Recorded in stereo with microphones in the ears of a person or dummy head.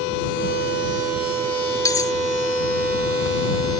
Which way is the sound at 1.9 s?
20° left (ahead or behind).